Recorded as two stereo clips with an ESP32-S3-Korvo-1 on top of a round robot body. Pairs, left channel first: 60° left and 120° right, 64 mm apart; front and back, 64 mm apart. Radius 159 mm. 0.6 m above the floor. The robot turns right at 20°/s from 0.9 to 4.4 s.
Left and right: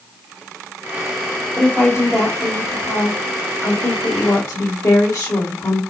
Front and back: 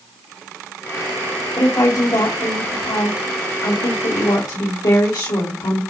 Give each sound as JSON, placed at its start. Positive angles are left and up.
{"t": 1.6, "sound": "a woman speaking", "azimuth_deg": -45, "distance_m": 3.5}